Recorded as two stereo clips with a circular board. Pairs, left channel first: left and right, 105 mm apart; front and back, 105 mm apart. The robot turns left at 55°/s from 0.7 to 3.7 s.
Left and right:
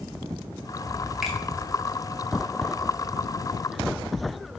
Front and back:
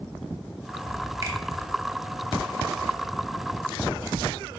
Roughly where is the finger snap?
Behind.